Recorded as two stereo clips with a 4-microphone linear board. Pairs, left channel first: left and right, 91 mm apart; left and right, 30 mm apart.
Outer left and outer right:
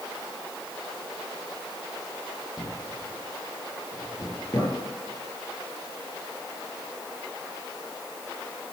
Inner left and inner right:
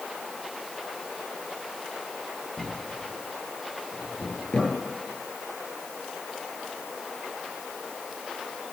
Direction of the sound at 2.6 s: 40° left (ahead or behind).